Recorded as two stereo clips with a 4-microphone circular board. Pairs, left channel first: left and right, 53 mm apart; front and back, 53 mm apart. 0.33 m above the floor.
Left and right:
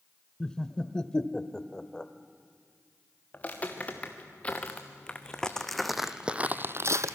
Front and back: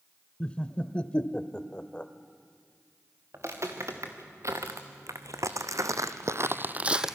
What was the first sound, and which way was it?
Laughter, 35° left.